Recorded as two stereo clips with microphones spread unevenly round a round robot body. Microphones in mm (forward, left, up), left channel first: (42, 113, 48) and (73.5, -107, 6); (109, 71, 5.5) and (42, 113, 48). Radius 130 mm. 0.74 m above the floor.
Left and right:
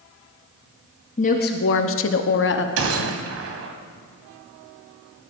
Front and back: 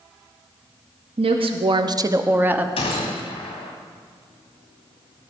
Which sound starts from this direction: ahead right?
A gunshot, at 2.8 s.